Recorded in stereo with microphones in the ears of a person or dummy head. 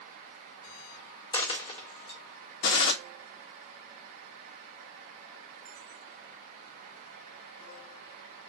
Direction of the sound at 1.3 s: 25° left (ahead or behind).